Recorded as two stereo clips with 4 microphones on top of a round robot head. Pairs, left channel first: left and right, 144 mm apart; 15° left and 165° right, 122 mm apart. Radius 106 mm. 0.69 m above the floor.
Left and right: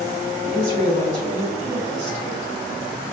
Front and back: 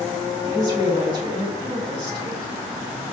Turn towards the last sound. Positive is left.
turn(degrees=-125)